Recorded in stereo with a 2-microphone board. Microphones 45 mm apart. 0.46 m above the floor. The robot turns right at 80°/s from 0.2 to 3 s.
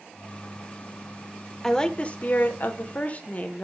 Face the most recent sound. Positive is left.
turn(degrees=125)